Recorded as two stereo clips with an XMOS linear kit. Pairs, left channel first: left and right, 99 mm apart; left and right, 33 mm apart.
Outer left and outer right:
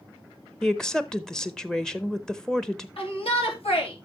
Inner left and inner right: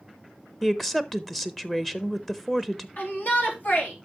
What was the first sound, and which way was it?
A woman speaking, 5° left (ahead or behind).